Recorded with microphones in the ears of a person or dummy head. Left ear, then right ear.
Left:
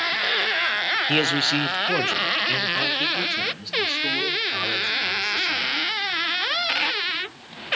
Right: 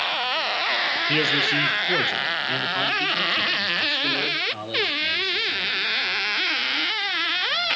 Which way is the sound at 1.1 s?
25° left (ahead or behind).